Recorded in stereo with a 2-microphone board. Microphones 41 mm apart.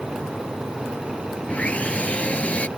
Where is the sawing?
30° left (ahead or behind).